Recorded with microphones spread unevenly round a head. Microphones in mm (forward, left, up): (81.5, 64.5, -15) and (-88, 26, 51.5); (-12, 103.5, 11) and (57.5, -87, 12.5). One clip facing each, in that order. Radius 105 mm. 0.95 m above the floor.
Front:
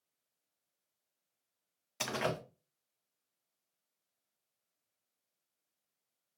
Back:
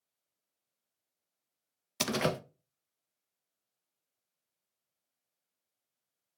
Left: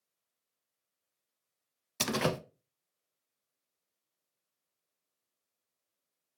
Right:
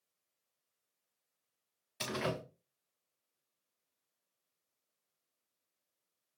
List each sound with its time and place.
2.0 s a door slam: 145° left, 0.5 m